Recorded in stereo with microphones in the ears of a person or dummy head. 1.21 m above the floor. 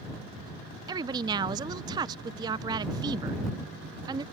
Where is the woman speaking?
25° right (ahead or behind).